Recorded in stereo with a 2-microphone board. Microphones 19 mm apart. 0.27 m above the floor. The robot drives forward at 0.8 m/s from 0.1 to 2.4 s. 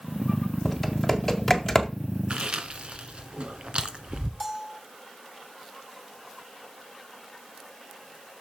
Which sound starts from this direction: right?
Chewing, at 2.3 s.